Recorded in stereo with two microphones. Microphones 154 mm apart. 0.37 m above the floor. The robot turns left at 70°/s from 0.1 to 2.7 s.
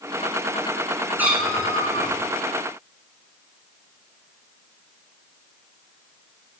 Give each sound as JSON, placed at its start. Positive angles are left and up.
{"t": 1.2, "sound": "a cat meowing", "azimuth_deg": -165, "distance_m": 3.0}